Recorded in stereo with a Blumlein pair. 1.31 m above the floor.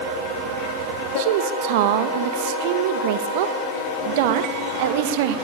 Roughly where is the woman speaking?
Ahead right.